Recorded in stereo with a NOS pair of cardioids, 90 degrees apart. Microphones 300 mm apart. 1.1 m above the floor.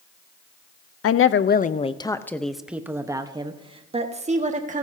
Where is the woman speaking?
55° left, 0.7 m; by 4.8 s 25° right, 2 m.